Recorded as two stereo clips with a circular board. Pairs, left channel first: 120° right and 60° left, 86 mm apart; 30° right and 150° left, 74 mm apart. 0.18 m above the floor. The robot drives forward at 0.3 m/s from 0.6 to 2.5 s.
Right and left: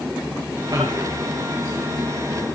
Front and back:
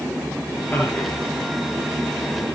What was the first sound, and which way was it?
A man speaking, 30° left.